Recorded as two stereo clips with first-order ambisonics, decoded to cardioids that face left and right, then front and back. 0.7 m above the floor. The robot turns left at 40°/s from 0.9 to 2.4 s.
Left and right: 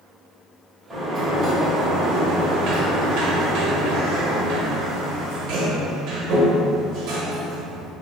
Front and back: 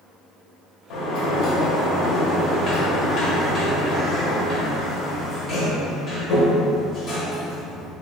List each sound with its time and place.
0.9 s a sliding door: straight ahead, 0.8 m; by 7.9 s 60° right, 0.8 m